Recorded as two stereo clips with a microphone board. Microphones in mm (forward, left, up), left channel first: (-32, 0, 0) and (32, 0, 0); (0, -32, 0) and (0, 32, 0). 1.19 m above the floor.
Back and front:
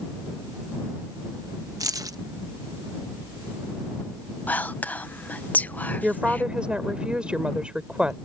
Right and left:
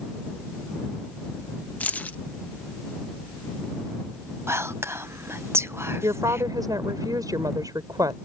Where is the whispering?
120° left.